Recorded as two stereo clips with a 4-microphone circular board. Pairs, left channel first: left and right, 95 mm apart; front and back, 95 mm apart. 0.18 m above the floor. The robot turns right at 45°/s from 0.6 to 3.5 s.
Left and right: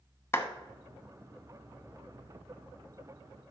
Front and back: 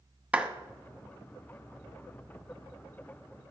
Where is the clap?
120° left, 0.9 m.